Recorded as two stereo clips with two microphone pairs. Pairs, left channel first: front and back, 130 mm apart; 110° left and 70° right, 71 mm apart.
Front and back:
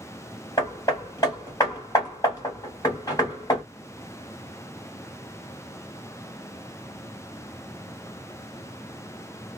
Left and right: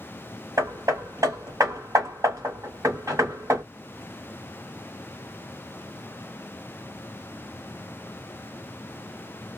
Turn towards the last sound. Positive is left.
turn(degrees=-50)